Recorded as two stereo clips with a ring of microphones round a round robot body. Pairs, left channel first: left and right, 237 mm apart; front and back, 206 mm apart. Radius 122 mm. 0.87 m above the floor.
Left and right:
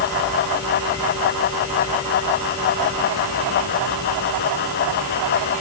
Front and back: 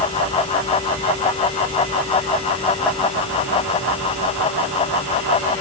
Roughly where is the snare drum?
I don't hear a snare drum.